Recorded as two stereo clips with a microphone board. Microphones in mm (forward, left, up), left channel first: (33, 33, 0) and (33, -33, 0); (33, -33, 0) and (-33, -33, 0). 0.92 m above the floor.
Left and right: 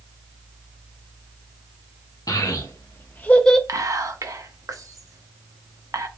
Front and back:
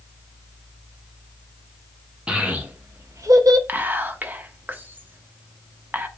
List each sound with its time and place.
2.3 s a child speaking: 110° left, 0.7 m; by 3.6 s 170° left, 0.5 m
3.7 s whispering: 120° right, 0.7 m